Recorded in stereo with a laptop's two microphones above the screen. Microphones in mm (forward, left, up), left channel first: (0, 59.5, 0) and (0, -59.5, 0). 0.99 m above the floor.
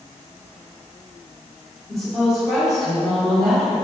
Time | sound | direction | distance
1.9 | a woman speaking | centre (ahead or behind) | 3.5 m